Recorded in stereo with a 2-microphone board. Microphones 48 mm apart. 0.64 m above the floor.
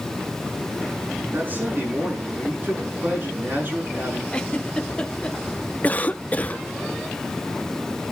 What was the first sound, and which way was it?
A man speaking, 40° right (ahead or behind).